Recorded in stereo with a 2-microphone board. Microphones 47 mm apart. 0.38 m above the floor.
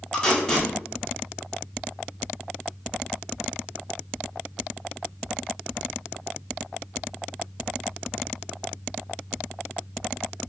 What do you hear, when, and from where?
0.1 s tape being pulled: 15° left (ahead or behind), 0.9 m